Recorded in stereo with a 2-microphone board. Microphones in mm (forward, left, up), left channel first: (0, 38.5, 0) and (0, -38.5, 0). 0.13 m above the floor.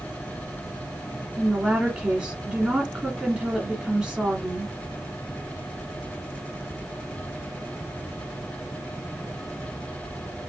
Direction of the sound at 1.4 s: 10° right (ahead or behind).